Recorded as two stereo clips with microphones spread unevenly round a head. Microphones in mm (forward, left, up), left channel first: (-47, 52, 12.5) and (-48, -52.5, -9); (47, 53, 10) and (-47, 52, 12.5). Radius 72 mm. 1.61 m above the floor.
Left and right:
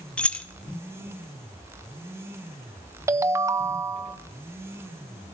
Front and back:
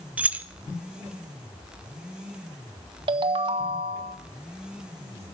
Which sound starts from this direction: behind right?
A ringtone, at 3.1 s.